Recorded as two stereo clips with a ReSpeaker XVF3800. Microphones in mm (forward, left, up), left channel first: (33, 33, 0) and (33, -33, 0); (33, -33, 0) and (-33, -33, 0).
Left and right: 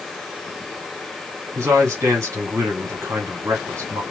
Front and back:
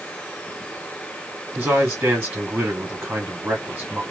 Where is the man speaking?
125° right, 1.9 m.